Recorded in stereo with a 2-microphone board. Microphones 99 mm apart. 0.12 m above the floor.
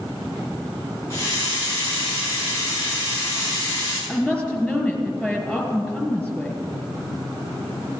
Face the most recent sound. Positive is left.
turn(degrees=0)  # may be behind; listen again after turning